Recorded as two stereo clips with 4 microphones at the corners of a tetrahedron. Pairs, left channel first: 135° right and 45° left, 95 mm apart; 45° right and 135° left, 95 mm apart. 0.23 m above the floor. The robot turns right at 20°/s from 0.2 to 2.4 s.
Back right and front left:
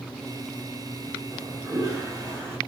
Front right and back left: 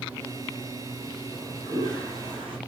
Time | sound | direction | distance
1.3 | a toilet flushing | 80° left | 2 m